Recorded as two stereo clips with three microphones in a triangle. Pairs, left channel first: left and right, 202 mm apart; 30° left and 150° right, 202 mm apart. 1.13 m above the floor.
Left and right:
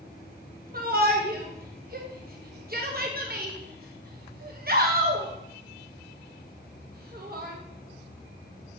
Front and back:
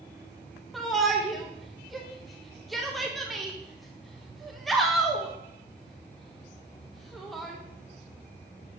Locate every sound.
0.7 s a shout: 60° right, 1.0 m